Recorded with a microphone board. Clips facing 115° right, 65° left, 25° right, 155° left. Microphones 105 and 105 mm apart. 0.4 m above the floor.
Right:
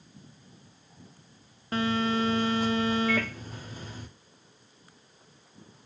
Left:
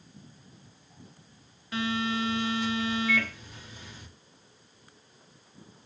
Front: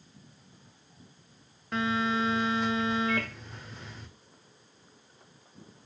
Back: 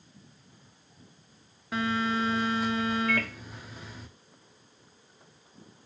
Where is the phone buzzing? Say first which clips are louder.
Right 3 dB, even; 115° right, 0.5 m.